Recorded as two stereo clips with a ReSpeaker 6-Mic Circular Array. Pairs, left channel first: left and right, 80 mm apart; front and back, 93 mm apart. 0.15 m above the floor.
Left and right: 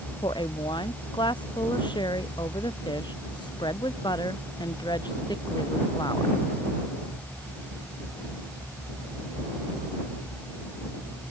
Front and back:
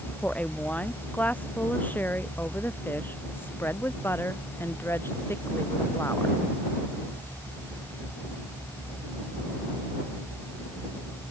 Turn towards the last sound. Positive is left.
turn(degrees=60)